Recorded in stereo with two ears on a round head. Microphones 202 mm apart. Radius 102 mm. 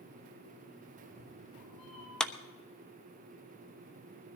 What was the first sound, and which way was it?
A cat meowing, 25° left (ahead or behind).